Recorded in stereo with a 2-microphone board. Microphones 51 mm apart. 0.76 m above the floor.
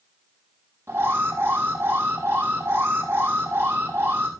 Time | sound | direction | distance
0.9 | an alarm | 55° right (ahead or behind) | 5.5 m